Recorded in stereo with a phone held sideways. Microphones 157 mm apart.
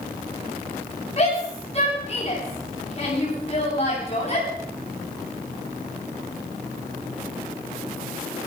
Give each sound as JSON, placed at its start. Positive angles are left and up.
{"t": 1.2, "sound": "a shout", "side_deg": 40, "distance_m": 10.0}